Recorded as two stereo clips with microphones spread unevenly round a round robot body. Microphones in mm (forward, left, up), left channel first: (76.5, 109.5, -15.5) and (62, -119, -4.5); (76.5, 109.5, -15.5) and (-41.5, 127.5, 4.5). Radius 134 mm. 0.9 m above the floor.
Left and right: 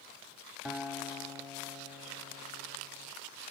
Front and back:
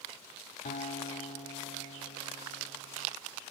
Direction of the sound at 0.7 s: 5° right.